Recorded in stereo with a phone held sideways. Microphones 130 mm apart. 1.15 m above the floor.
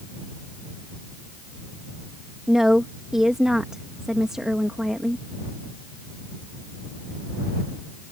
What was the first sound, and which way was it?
A woman speaking, 5° right (ahead or behind).